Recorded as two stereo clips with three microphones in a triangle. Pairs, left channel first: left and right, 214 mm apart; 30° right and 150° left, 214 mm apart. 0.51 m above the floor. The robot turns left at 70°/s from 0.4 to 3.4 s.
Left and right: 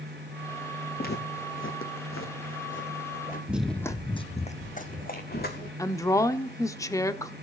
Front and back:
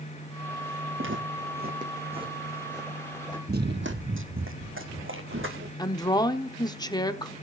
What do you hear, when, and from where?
1.0 s footsteps: 135° left, 2.5 m; by 3.4 s 35° left, 2.5 m
3.5 s running footsteps: 170° right, 0.9 m; by 5.7 s 130° left, 2.5 m
5.8 s a woman speaking: 25° left, 1.1 m